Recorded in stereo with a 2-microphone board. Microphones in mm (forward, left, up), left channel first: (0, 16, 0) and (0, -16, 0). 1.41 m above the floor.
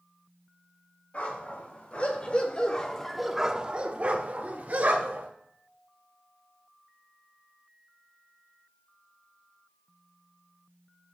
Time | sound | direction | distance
1.1 | a dog barking | 45° left (ahead or behind) | 3 m